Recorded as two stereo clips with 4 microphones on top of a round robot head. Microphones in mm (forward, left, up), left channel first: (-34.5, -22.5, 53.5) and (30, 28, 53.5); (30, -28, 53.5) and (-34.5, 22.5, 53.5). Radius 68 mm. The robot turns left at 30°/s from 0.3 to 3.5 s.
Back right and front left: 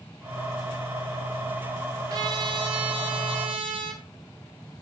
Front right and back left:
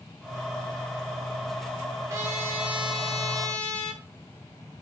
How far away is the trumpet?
About 1.4 m.